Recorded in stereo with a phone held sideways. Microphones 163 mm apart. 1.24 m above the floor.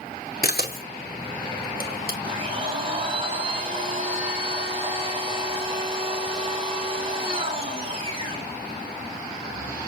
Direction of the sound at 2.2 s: 35° right (ahead or behind).